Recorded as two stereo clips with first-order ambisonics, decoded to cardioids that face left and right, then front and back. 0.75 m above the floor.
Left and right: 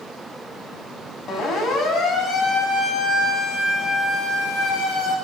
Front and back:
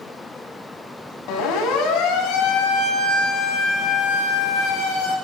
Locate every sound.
1.3 s a siren: 35° left, 7.5 m; by 5.2 s 45° left, 9.5 m